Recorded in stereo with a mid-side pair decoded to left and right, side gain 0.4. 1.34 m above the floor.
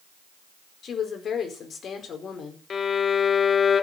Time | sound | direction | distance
0.8 | a woman speaking | 60° left | 4.5 m
2.7 | a violin | 50° left | 1.1 m